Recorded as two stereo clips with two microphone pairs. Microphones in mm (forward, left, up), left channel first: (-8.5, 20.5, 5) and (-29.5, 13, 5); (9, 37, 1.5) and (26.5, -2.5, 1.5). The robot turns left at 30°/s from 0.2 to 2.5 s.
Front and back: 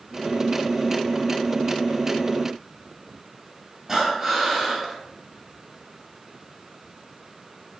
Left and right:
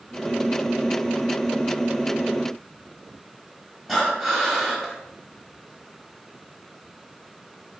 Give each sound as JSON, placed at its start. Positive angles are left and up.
{"t": 3.9, "sound": "breathing", "azimuth_deg": -155, "distance_m": 0.7}